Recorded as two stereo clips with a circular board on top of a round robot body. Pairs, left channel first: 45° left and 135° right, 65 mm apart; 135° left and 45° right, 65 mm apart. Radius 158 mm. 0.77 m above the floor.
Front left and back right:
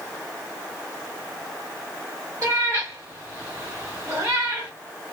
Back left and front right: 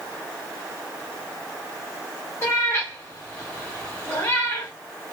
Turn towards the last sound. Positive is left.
turn(degrees=-170)